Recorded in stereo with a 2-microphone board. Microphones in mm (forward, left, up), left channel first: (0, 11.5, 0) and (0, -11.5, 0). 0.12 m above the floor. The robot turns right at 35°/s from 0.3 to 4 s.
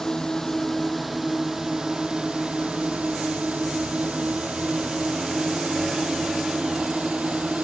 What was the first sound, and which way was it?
A drone, 25° left (ahead or behind).